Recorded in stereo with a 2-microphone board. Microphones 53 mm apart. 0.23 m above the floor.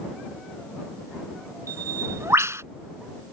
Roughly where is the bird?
Right.